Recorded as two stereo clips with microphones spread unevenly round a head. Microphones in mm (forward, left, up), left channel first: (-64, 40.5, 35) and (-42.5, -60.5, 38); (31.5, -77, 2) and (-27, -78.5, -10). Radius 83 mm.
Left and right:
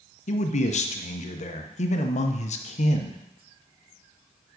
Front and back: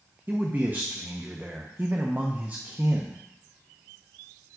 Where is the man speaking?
100° left, 0.8 m.